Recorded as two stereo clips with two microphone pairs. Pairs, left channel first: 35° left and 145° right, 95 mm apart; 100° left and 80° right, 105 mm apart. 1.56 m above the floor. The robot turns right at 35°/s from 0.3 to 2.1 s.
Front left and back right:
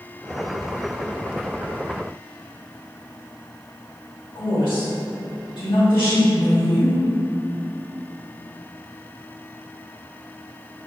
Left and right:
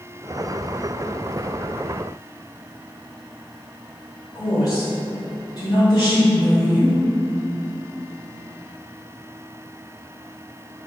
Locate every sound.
4.3 s a woman speaking: 55° left, 2.0 m